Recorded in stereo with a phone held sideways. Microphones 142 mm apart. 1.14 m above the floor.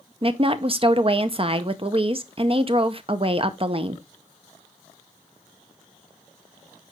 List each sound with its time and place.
0.2 s a woman speaking: 40° right (ahead or behind), 0.7 m